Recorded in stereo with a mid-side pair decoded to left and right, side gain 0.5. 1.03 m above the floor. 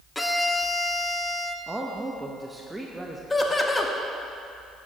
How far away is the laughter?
About 1.4 m.